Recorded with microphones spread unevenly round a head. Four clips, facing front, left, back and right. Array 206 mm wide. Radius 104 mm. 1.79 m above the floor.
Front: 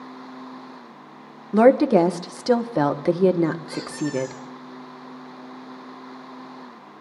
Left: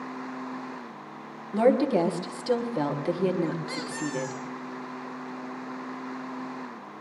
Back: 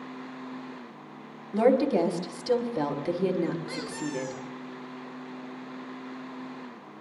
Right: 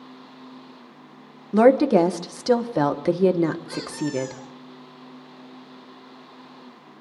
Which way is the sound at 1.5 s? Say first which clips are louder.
Right 6 dB, front 7 dB; 30° right.